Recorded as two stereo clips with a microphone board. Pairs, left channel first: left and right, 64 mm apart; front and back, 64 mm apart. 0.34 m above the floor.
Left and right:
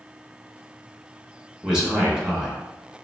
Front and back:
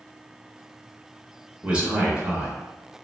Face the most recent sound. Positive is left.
turn(degrees=-145)